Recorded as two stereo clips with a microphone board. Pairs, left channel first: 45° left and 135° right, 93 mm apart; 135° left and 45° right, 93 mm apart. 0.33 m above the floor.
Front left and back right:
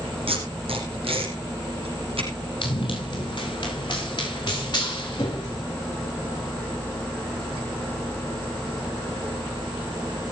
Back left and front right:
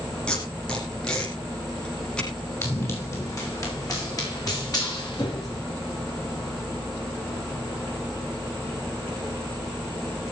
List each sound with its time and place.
0.3 s tape being pulled: 145° right, 6 m
2.6 s running footsteps: 75° left, 9.5 m; by 5.6 s 90° left, 11.5 m